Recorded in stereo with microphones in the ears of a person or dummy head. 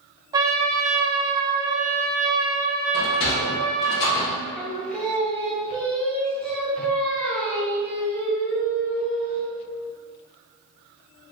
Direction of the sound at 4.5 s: 10° left (ahead or behind).